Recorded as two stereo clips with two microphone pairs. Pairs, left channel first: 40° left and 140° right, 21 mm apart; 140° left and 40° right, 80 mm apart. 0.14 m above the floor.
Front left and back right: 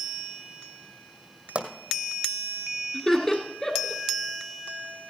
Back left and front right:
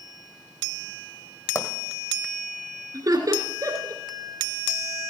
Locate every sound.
1.6 s a pop: 170° right, 1.7 m
2.9 s laughter: 20° right, 1.9 m